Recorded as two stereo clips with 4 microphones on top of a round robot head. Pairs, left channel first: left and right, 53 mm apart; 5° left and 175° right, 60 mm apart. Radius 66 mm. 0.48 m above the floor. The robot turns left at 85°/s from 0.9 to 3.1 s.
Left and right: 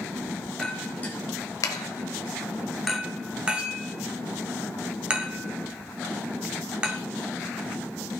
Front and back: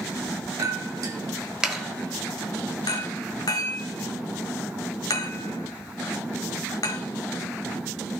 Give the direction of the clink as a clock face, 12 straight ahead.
6 o'clock.